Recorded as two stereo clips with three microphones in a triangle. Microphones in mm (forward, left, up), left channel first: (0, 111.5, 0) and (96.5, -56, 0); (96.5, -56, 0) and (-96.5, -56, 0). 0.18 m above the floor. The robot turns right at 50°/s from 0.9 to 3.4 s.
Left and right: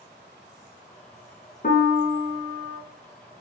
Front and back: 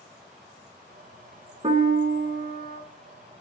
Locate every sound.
1.6 s a piano: 130° left, 0.5 m; by 2.8 s 170° right, 0.5 m